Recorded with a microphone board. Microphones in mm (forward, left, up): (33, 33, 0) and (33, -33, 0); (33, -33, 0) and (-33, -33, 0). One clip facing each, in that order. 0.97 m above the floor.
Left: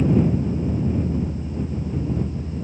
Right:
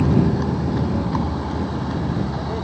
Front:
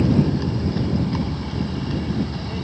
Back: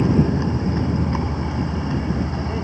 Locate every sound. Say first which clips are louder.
0.0 s a vehicle: right 1 dB, back 1 dB; 110° right